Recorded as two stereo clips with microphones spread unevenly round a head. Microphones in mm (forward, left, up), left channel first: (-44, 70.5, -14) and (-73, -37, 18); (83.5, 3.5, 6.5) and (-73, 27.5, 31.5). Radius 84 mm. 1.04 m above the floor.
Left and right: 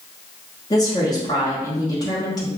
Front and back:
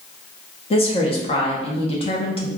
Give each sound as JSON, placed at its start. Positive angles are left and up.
{"t": 0.7, "sound": "a woman speaking", "azimuth_deg": 30, "distance_m": 1.0}